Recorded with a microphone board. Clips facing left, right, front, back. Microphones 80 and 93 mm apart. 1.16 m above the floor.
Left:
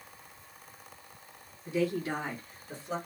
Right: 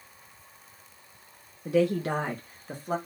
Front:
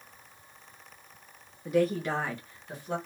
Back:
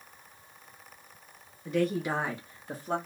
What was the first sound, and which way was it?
A woman speaking, 75° right.